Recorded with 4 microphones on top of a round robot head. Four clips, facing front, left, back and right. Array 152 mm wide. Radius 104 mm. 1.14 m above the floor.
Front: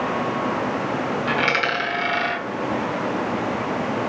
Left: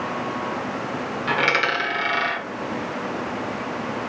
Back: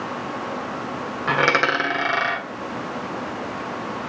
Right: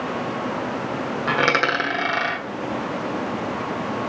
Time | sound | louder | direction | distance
1.3 | a dropped coin | right 2 dB, back 6 dB | 140° right | 1.4 m